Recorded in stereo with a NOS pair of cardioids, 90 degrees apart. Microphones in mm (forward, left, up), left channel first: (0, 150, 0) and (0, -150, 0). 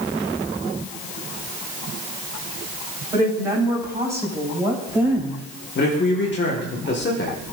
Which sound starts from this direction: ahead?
A woman speaking, at 3.1 s.